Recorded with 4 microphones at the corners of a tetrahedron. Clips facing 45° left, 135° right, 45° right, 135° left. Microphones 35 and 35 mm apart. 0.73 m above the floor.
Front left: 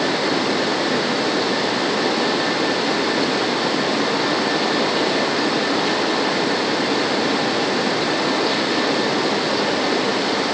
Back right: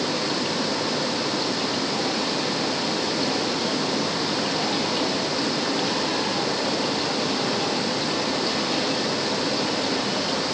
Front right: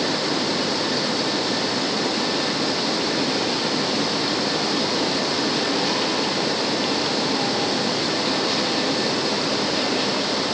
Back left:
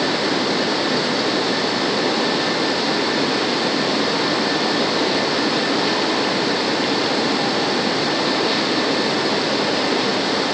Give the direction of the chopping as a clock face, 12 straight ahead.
I don't hear chopping.